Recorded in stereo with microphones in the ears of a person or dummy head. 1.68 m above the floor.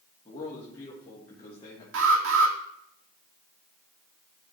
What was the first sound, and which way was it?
A man speaking, 30° left (ahead or behind).